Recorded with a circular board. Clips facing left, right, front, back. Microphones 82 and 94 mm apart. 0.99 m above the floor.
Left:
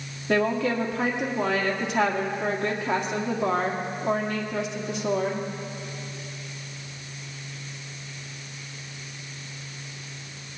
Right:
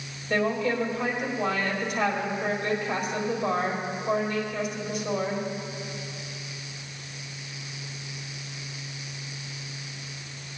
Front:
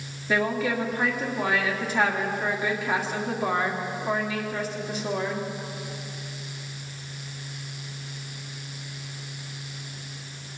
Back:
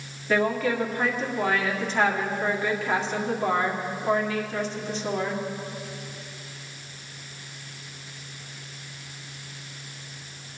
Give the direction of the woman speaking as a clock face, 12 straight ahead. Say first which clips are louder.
Left 2 dB, back 1 dB; 9 o'clock.